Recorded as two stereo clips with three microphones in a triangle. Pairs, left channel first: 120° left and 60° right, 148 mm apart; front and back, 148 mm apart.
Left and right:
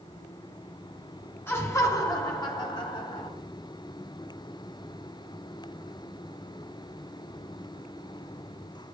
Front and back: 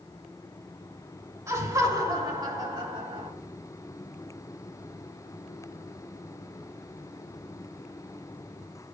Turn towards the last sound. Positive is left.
turn(degrees=145)